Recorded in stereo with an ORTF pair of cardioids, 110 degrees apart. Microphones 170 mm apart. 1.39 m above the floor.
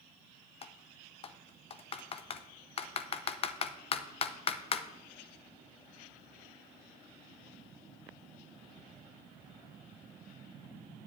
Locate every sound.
0.6 s typing on a keyboard: 35° left, 0.7 m